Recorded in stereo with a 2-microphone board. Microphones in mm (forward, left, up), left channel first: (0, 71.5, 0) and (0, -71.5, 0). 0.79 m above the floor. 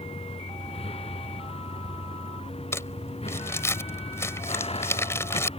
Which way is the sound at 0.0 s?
45° left (ahead or behind).